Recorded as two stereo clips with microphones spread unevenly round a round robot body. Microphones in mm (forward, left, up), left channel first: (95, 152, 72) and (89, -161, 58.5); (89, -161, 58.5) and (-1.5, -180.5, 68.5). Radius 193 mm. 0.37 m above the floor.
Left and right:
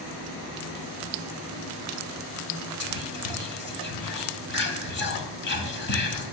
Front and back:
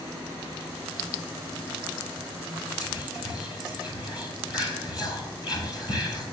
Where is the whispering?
110° left, 1.6 m.